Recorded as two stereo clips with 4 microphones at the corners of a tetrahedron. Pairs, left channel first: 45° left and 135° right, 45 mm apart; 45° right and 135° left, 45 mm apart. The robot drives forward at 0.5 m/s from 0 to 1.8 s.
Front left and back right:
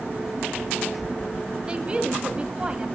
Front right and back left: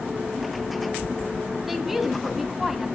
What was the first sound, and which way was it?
A woman speaking, 145° right.